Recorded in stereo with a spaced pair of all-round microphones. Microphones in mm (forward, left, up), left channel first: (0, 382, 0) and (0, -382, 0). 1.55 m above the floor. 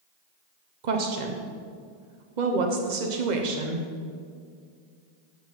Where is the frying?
No frying in this recording.